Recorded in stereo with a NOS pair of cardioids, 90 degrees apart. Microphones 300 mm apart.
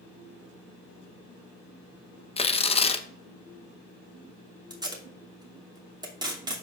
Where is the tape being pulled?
15° right, 2.5 m.